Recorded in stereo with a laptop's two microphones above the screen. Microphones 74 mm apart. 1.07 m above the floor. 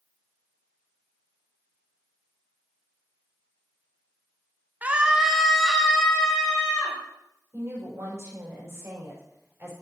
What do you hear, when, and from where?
4.8 s a scream: 20° right (ahead or behind), 0.8 m; by 7.0 s 10° left (ahead or behind), 2.5 m
7.5 s a woman speaking: 35° right (ahead or behind), 5 m